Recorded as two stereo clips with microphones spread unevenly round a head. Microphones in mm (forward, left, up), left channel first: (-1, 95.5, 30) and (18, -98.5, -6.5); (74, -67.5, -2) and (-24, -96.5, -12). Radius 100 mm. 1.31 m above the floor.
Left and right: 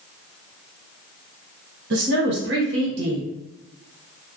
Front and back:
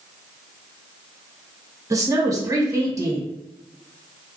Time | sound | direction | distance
1.9 | a woman speaking | 110° right | 1.1 m